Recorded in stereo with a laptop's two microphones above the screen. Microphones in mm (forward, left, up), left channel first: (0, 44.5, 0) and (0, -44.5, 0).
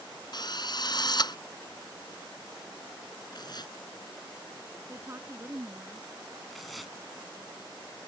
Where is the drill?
50° left (ahead or behind).